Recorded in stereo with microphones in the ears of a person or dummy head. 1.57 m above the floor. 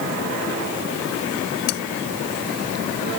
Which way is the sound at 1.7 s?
75° left (ahead or behind).